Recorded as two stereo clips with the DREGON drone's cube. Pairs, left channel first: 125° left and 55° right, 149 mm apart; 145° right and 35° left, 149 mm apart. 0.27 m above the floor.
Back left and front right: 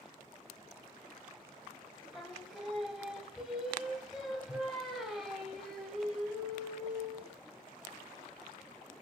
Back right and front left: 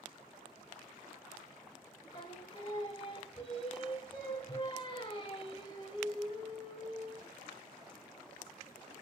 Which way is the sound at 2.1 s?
145° right.